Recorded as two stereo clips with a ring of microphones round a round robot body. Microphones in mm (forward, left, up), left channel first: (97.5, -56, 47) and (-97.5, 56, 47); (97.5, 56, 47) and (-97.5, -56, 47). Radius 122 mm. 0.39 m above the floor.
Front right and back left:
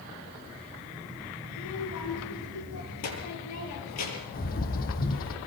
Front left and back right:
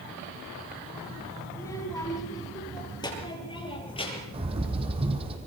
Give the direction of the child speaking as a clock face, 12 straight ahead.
2 o'clock.